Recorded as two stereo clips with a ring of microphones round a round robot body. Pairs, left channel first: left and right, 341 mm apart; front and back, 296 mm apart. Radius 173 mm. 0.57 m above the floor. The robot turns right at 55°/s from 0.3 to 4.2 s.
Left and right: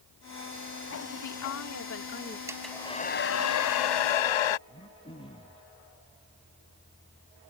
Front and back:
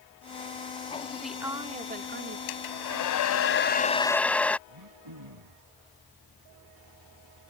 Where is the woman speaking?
85° left; by 2.4 s 155° left.